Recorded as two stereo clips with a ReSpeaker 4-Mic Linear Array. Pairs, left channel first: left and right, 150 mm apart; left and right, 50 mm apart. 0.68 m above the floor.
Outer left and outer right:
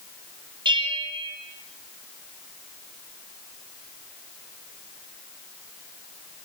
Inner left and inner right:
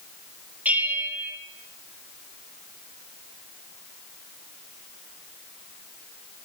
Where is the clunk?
No clunk in this recording.